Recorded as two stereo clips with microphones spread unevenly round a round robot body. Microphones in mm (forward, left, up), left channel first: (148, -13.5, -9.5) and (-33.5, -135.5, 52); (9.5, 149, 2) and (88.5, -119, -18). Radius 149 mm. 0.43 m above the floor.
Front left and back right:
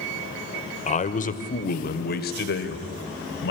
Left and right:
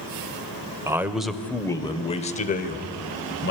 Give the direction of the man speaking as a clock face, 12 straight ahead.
12 o'clock.